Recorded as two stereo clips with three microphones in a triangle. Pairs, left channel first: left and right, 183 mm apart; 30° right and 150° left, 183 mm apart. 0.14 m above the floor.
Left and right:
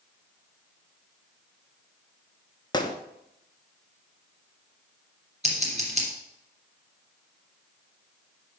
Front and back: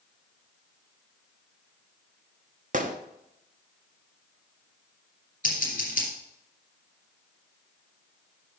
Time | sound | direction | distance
2.7 | a gunshot | 145° left | 0.8 m
5.4 | scissors | 50° right | 2.5 m